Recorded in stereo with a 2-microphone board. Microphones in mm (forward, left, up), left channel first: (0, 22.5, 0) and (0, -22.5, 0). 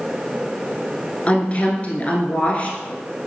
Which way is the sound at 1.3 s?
30° left (ahead or behind).